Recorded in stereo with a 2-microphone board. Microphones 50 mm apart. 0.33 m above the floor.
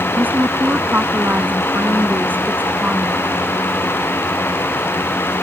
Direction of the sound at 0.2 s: 35° right (ahead or behind).